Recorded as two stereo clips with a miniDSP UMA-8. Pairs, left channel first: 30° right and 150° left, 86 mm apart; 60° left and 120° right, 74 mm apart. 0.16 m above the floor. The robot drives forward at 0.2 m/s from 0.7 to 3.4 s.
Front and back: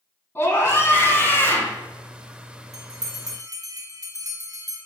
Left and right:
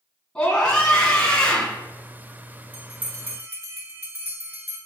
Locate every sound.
0.3 s a scream: 5° right, 1.8 m
2.7 s a bell: straight behind, 1.5 m